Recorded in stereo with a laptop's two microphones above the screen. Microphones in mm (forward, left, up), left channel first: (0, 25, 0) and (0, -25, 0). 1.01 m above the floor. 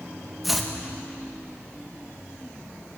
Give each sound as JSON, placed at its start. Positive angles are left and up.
{"t": 0.4, "sound": "chopping", "side_deg": -5, "distance_m": 1.2}